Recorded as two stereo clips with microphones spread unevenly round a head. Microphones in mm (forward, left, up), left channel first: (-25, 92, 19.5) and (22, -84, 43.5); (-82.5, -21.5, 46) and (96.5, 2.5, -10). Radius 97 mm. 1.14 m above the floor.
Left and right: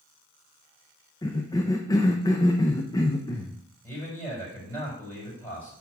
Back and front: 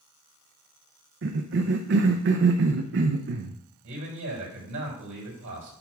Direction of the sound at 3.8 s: 25° left.